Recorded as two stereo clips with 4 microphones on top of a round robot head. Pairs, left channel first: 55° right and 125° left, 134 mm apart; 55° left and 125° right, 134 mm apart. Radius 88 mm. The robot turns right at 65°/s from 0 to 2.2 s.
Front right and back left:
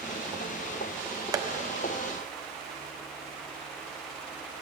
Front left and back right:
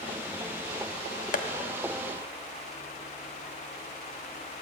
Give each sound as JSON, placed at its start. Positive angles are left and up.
{"t": 1.3, "sound": "tapping", "azimuth_deg": 65, "distance_m": 1.1}